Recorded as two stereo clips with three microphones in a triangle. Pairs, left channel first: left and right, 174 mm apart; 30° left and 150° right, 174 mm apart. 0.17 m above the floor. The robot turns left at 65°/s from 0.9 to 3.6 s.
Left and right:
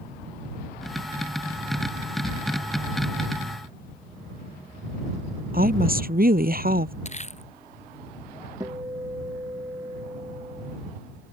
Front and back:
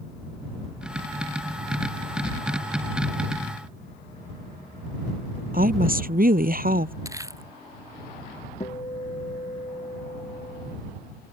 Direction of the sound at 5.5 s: 120° right.